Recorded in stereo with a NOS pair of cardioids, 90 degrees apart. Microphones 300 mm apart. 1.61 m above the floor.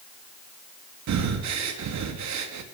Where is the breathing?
65° right, 3 m.